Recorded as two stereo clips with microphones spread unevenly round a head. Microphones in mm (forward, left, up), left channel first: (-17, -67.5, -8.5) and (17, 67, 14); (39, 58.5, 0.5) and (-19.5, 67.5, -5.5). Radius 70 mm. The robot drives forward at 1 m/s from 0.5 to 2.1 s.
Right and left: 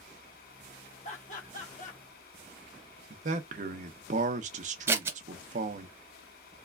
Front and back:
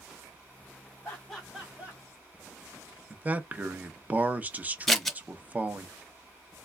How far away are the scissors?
About 0.9 m.